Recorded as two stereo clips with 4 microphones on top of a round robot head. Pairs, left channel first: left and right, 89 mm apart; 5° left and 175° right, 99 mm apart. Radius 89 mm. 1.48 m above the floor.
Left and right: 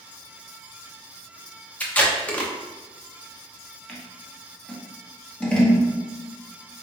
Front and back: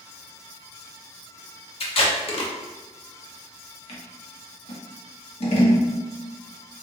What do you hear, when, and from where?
1.8 s tape being pulled: 15° left, 0.9 m
3.9 s scissors: 10° left, 1.0 m